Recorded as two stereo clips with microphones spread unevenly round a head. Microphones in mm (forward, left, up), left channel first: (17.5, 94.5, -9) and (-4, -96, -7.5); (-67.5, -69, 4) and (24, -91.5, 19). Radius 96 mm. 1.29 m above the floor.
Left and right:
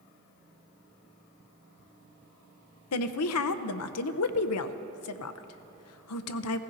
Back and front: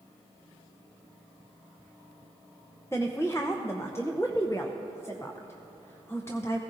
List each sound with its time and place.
2.9 s a woman speaking: 85° left, 0.6 m